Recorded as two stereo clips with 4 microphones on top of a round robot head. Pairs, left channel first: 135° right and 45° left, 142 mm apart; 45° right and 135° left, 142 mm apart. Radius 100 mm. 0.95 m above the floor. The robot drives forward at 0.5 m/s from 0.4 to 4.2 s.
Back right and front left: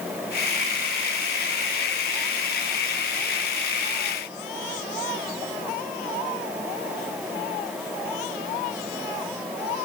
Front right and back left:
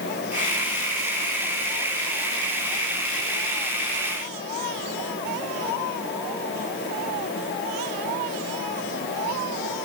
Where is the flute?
No flute in this recording.